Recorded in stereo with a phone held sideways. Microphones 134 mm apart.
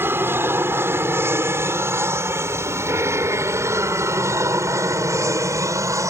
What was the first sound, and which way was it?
An aircraft, 15° right (ahead or behind).